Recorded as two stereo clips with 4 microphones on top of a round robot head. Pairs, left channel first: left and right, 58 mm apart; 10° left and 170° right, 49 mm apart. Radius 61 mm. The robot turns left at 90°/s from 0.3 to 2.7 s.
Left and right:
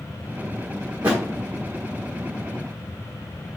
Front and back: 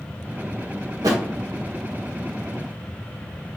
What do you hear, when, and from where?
1.0 s a thud: 160° right, 0.9 m; by 1.2 s 175° right, 0.9 m